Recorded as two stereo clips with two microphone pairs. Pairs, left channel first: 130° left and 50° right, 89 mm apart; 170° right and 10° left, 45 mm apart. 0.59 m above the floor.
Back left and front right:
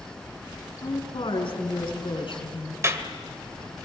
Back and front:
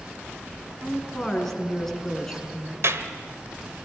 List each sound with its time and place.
0.8 s a woman speaking: 110° left, 5.5 m
2.8 s a clap: 10° left, 1.8 m